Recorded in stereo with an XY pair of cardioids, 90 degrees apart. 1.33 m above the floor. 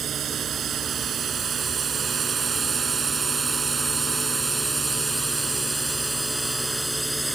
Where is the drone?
65° right; by 7.4 s 10° right.